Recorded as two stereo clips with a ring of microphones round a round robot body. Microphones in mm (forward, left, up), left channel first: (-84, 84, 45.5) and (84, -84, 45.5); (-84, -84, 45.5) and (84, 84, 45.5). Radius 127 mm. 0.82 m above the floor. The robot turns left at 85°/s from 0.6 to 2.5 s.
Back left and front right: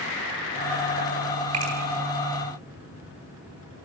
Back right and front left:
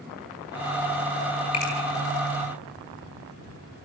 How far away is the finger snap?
About 9.5 m.